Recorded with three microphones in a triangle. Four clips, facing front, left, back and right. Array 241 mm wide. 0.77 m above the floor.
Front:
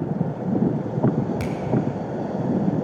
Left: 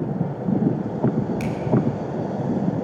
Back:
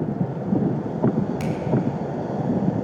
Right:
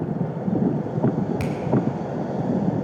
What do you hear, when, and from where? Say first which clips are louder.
1.4 s a finger snap: even, back 1 dB; 45° right, 2.5 m